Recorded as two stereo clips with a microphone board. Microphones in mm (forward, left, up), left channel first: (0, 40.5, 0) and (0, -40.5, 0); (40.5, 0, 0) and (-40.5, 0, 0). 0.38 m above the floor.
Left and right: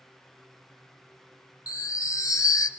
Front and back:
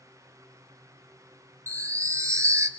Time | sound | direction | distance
1.7 | a chime | 130° left | 1.3 m